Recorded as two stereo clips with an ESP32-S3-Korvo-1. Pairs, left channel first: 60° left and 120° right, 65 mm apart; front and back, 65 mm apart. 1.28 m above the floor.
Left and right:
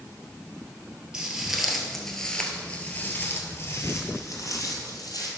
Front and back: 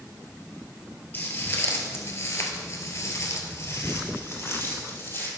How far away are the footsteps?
About 1.8 m.